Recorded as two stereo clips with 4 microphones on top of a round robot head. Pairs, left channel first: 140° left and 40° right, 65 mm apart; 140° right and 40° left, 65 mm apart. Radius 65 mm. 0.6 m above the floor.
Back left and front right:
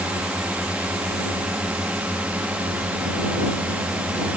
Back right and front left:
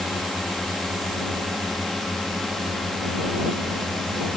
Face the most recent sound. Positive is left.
turn(degrees=-55)